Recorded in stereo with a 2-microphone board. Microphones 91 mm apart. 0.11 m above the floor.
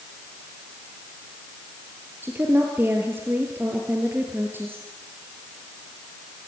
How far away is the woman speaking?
About 2.5 m.